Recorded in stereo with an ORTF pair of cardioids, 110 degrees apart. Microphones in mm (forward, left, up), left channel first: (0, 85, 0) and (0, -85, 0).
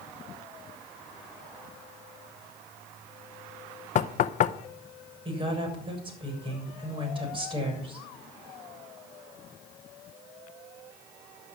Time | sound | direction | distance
4.0 | knocking | 45° left | 0.7 m
5.2 | a woman speaking | 30° right | 7 m